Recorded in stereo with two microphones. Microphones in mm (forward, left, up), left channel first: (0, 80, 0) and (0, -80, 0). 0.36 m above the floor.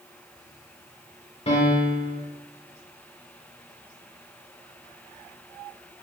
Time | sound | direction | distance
1.5 | a piano | 40° left (ahead or behind) | 0.7 m